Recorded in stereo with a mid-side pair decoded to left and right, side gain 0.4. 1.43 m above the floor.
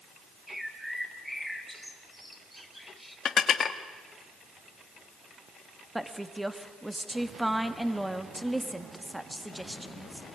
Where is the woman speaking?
5° right, 2.5 m.